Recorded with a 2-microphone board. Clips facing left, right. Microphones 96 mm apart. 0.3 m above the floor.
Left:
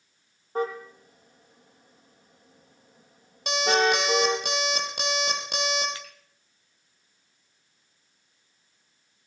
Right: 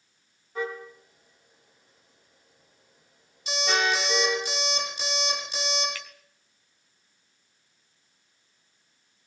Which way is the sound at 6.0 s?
25° left (ahead or behind).